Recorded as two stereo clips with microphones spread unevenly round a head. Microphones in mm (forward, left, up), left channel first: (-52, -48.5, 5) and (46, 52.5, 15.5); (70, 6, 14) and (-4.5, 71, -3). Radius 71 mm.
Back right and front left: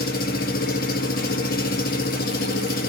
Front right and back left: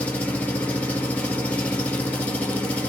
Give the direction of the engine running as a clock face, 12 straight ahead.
4 o'clock.